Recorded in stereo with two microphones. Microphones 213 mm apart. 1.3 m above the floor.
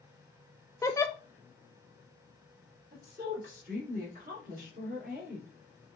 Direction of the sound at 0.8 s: 15° left (ahead or behind).